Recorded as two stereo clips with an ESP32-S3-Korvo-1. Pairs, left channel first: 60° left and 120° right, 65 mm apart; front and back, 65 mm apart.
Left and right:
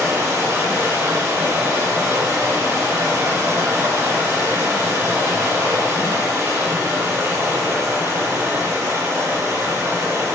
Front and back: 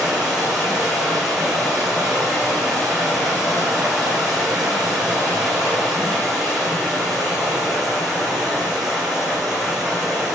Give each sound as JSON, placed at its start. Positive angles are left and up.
{"t": 0.0, "sound": "running water", "azimuth_deg": -95, "distance_m": 2.5}